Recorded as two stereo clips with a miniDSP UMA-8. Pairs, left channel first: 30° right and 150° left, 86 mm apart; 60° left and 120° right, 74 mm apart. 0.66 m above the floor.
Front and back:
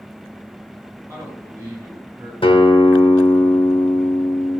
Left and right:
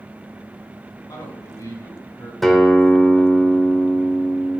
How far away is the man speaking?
About 5 m.